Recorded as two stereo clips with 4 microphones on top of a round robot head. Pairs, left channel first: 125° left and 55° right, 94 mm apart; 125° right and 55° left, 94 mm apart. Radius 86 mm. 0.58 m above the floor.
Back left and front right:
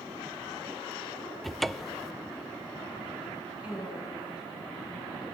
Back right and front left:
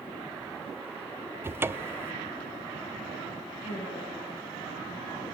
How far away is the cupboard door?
About 0.7 m.